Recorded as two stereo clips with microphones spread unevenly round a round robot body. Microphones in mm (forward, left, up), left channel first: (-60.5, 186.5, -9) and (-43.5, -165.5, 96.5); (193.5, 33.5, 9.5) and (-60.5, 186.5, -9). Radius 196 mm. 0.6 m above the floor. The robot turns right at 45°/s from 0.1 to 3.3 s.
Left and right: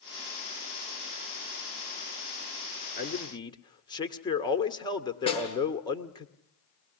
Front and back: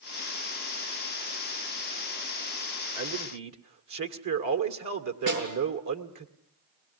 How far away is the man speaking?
About 1.9 m.